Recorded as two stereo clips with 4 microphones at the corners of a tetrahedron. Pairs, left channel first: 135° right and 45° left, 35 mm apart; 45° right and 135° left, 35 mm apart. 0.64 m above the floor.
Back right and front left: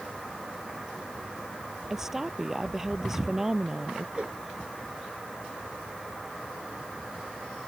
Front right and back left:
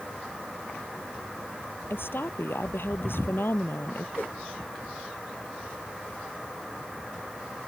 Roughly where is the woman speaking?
Ahead right.